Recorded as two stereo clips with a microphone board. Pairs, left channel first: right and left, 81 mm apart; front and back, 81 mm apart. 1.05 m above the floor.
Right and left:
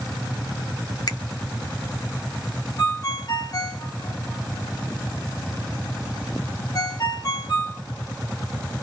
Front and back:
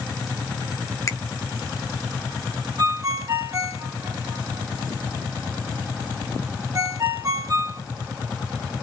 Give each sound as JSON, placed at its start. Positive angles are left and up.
{"t": 1.1, "sound": "a finger snap", "azimuth_deg": -50, "distance_m": 0.8}
{"t": 2.8, "sound": "a ringtone", "azimuth_deg": -130, "distance_m": 1.3}